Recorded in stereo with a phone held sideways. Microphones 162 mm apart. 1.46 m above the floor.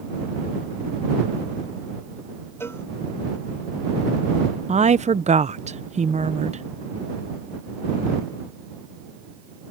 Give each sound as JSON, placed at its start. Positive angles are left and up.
{"t": 2.6, "sound": "a cowbell", "side_deg": 15}
{"t": 4.7, "sound": "a woman speaking", "side_deg": -45}